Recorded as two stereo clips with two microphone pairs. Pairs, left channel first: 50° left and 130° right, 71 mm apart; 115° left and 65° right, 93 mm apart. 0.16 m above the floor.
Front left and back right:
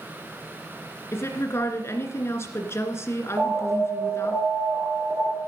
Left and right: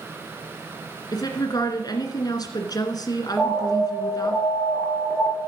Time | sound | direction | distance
1.1 | a woman speaking | 90° left | 1.9 m
3.4 | an alarm | 165° right | 3 m